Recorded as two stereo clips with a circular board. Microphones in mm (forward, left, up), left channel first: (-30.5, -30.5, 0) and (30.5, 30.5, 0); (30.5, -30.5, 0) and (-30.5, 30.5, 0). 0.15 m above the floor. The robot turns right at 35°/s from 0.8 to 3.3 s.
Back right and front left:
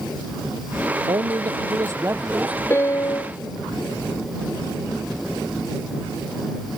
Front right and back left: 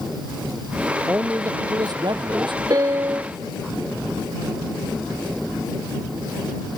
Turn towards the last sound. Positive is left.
turn(degrees=-170)